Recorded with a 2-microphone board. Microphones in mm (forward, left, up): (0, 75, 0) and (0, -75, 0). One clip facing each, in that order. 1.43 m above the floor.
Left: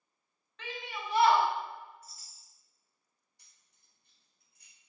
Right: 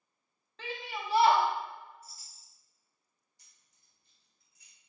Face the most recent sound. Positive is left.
turn(degrees=65)  # may be behind; listen again after turning